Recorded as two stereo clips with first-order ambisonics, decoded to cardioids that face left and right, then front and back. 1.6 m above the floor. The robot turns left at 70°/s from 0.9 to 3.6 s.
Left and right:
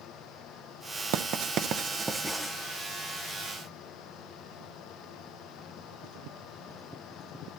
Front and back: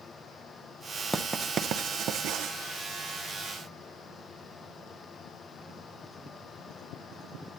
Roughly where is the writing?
Right.